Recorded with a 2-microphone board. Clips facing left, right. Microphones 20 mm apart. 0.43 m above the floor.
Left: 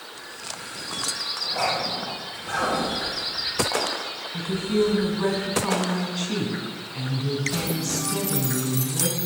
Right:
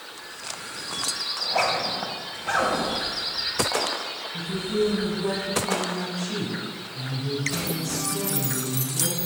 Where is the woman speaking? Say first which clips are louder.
Left 3 dB; 70° left (ahead or behind), 3.5 m.